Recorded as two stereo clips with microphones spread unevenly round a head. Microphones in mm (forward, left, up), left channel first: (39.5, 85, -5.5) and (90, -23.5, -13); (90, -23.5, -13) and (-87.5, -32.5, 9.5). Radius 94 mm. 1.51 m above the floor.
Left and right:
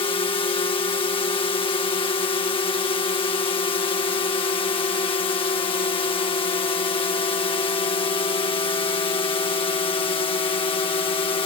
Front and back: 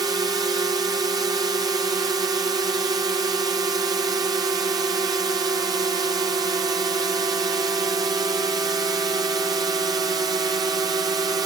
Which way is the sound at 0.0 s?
115° left.